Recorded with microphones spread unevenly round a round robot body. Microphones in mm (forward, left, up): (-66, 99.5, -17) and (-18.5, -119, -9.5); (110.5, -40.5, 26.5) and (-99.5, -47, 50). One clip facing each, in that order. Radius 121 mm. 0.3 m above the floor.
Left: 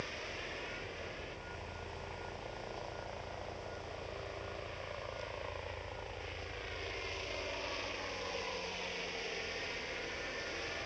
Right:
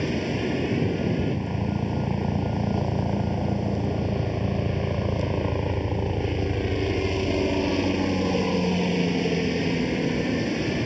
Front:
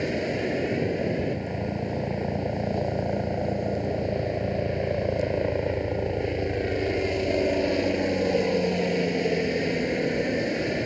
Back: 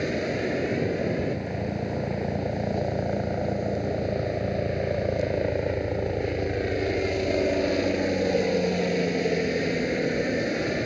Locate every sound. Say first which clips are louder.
0.0 s a helicopter: right 21 dB, even; 90° right